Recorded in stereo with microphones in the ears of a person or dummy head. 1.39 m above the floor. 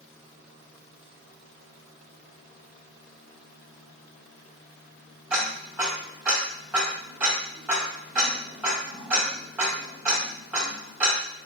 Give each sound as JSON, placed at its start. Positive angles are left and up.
{"t": 5.3, "sound": "ticking", "side_deg": -10, "distance_m": 1.6}